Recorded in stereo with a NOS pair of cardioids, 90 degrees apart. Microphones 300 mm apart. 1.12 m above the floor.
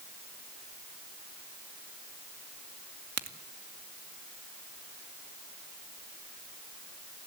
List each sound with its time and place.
3.2 s a crack: 55° right, 2.5 m